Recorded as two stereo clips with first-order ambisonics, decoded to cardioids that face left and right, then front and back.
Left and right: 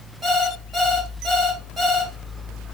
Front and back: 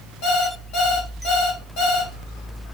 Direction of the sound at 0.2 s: 10° right.